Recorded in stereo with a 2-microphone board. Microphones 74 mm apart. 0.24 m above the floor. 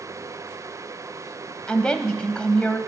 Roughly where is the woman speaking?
Centre.